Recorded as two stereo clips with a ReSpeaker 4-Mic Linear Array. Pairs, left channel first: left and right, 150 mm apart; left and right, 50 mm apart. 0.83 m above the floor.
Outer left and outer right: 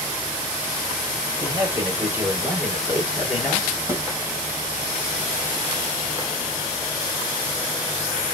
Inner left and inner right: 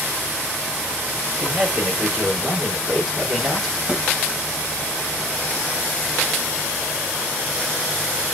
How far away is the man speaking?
About 3 m.